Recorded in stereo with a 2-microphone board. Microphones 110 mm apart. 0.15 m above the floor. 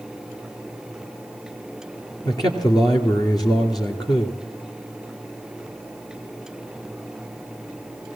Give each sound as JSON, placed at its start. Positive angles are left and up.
{"t": 2.2, "sound": "a man speaking", "side_deg": 40, "distance_m": 2.5}